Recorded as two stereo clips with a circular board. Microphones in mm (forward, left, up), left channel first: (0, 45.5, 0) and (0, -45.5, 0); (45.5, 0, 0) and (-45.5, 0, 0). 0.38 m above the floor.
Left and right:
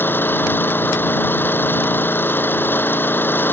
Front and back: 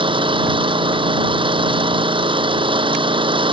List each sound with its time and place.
0.0 s an engine running: 160° left